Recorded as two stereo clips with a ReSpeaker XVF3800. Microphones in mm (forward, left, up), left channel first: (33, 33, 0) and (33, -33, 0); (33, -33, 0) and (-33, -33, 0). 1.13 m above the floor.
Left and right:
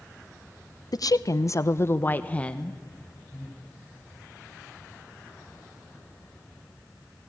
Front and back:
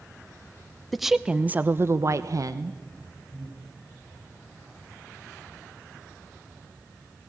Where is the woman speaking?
90° left, 0.8 m; by 2.8 s 170° left, 1.0 m.